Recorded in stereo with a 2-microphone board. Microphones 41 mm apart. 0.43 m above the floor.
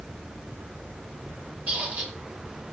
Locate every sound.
1.7 s a squeak: 35° right (ahead or behind), 1.2 m